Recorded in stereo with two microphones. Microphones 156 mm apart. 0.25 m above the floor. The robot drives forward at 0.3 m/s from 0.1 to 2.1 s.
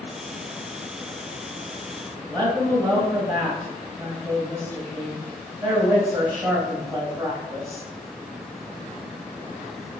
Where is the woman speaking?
15° right (ahead or behind), 1.1 m.